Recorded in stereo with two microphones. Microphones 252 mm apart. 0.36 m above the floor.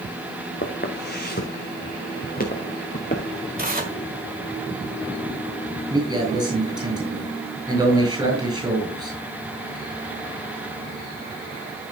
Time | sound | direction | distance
0.6 | footsteps | 40° left (ahead or behind) | 2 m
3.6 | tearing paper | 35° right (ahead or behind) | 1.7 m
5.9 | a man speaking | 15° right (ahead or behind) | 8 m